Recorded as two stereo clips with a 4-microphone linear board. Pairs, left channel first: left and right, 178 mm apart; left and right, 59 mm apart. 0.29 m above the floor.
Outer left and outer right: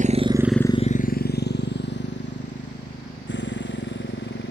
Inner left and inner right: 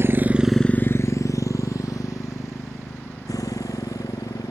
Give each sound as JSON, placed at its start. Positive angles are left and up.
{"t": 0.0, "sound": "a motorcycle", "side_deg": -45}